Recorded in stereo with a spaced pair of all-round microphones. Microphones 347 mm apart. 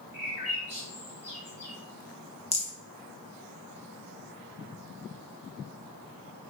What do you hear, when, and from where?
0.1 s a bird: 45° left (ahead or behind), 2.5 m
2.5 s a rattle: 20° left (ahead or behind), 1.0 m